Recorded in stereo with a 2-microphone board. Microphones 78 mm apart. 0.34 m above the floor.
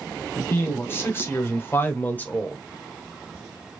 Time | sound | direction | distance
0.3 | a man speaking | 30° left (ahead or behind) | 2 m